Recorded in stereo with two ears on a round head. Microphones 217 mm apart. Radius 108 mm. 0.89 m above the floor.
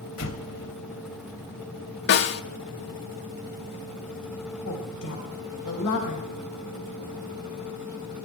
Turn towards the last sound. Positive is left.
turn(degrees=65)  # may be behind; listen again after turning